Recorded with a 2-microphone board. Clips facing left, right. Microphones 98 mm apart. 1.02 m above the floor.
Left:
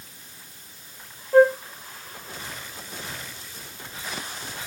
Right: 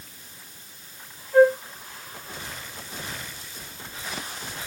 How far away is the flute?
About 0.7 m.